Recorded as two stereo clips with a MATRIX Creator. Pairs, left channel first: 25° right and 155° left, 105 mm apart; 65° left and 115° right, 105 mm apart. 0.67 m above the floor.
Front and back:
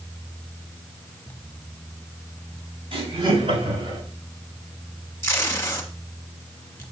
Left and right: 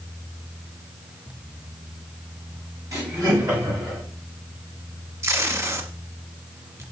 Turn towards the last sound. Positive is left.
turn(degrees=-70)